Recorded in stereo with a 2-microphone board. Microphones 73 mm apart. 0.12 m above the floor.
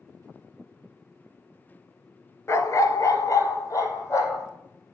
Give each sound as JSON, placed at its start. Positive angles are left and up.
{"t": 2.5, "sound": "a dog barking", "side_deg": 40, "distance_m": 0.8}